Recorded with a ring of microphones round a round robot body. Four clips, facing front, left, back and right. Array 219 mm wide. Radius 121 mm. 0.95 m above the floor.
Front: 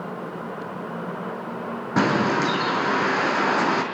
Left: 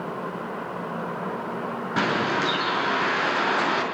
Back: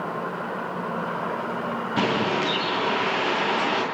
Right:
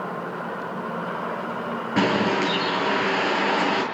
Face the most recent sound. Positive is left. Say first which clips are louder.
# right 3 dB, front 4 dB
turn(degrees=-20)